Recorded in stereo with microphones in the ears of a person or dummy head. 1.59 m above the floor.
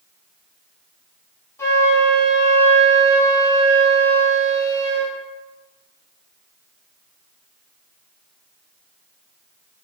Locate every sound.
1.6 s a flute: 20° left (ahead or behind), 4 m